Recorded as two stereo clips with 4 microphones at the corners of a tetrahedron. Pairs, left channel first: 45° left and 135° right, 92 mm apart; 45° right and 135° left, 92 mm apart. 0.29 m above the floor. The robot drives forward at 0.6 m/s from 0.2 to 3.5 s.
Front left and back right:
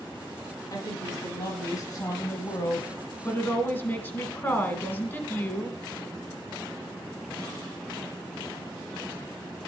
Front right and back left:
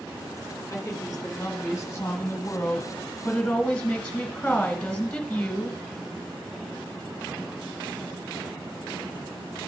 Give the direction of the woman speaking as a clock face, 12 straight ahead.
12 o'clock.